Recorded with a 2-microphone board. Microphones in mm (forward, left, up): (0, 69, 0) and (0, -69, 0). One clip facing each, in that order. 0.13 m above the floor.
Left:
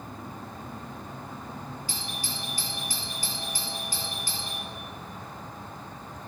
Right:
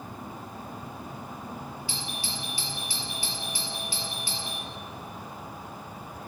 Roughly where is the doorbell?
Left.